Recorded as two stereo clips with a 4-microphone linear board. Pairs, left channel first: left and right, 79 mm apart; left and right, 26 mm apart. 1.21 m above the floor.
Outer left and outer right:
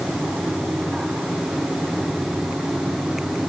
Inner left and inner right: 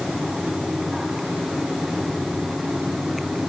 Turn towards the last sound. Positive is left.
No sound to turn to.